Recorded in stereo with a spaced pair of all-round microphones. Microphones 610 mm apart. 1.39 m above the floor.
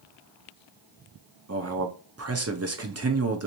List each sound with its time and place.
1.5 s a man speaking: 25° right (ahead or behind), 0.6 m